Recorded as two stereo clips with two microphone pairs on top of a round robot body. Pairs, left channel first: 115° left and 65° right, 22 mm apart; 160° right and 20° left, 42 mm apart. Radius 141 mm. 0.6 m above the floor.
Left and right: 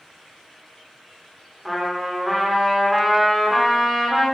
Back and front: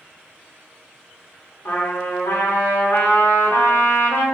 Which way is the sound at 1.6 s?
155° right.